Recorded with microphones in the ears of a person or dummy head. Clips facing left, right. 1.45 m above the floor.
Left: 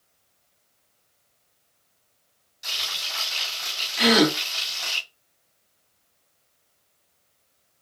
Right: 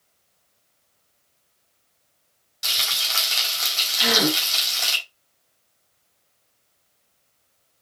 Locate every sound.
2.6 s frying: 80° right, 4.5 m
4.0 s a gasp: 50° left (ahead or behind), 1.4 m